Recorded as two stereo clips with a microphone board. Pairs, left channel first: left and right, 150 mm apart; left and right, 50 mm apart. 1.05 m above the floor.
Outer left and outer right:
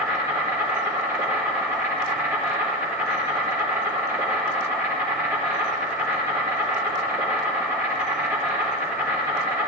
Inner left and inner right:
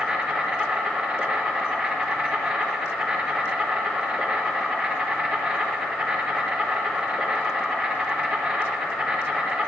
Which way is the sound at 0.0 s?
15° right (ahead or behind).